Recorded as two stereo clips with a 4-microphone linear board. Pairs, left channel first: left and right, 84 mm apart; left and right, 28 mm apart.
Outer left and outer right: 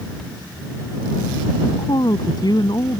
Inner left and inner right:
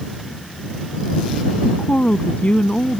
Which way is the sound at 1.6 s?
55° left (ahead or behind).